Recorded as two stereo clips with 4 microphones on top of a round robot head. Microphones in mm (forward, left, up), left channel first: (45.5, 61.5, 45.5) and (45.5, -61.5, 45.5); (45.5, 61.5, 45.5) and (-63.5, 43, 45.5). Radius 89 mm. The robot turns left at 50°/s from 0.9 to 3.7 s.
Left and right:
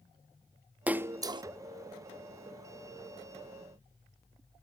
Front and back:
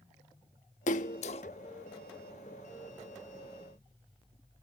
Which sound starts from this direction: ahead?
A splash, at 0.9 s.